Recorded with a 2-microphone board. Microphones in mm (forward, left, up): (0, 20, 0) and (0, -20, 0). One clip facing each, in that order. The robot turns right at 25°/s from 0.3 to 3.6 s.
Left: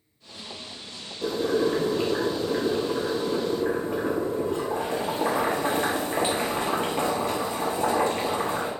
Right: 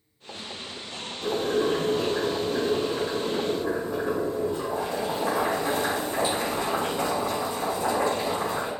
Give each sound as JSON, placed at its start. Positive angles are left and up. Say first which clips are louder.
{"t": 1.2, "sound": "boiling", "louder": "left 1 dB", "azimuth_deg": 55, "distance_m": 1.7}